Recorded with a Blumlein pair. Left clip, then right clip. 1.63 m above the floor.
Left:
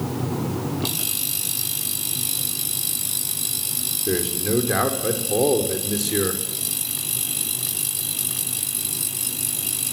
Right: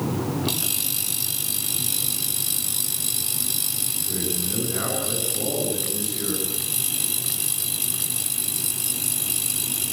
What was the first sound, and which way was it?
A man speaking, 40° left.